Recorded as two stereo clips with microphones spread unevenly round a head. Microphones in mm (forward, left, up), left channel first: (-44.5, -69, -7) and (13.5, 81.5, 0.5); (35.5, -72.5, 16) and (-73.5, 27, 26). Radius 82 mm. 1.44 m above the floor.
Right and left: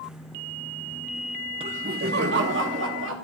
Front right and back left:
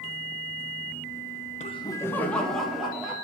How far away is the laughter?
About 0.5 m.